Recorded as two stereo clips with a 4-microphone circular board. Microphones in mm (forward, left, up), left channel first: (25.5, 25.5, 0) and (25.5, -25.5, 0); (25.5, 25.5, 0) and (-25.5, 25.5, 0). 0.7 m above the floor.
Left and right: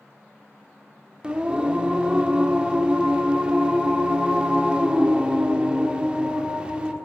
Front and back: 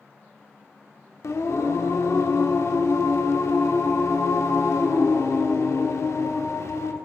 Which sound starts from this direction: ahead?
Singing, at 1.2 s.